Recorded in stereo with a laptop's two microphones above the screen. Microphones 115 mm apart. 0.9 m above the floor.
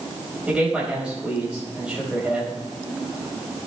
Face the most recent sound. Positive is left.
turn(degrees=-10)  # may be behind; listen again after turning